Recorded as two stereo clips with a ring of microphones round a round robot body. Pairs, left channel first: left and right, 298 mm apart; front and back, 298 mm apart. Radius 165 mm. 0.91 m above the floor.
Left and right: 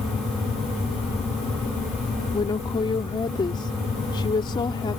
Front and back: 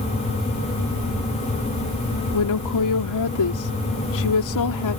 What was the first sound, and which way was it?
A woman speaking, 15° left.